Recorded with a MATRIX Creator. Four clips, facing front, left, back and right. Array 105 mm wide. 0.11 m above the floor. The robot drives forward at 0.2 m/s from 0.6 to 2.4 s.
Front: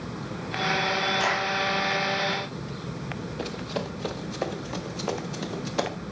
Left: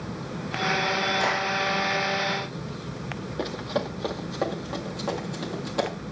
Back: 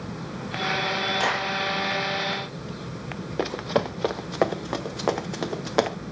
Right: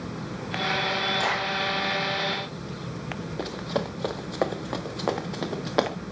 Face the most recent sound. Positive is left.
turn(degrees=-145)